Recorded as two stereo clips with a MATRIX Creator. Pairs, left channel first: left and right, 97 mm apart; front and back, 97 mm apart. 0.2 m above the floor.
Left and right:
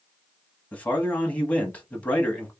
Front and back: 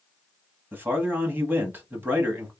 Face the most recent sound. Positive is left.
turn(degrees=145)